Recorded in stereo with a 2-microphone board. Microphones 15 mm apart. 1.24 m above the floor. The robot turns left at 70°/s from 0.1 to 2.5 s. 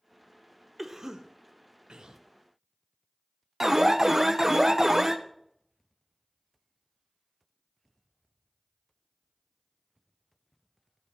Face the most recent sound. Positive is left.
turn(degrees=-20)  # may be behind; listen again after turning